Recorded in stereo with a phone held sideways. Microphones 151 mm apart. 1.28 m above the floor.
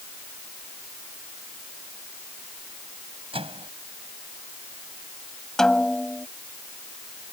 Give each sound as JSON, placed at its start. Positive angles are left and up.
{"t": 3.3, "sound": "a microwave", "side_deg": -35}
{"t": 5.6, "sound": "a snare drum", "side_deg": 5}